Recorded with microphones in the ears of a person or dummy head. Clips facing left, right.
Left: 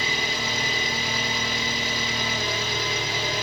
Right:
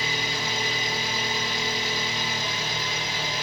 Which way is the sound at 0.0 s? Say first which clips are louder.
Left 1 dB; 65° left (ahead or behind).